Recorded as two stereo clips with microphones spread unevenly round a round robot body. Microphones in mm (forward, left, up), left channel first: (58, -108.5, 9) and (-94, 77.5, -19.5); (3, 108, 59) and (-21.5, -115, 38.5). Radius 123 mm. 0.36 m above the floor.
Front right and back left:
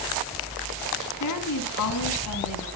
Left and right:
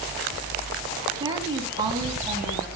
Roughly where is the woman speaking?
Ahead right.